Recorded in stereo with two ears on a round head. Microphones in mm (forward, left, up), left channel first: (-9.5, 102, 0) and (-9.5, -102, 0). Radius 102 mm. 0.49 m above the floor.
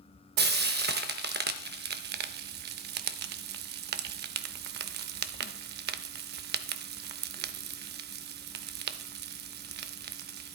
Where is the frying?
45° right (ahead or behind), 0.5 m.